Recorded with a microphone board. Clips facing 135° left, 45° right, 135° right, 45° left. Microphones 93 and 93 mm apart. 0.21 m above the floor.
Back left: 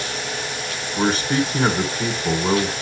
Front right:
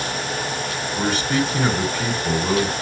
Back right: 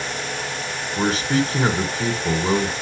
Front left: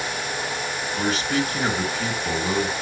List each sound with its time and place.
1.0 s a man speaking: 170° right, 2 m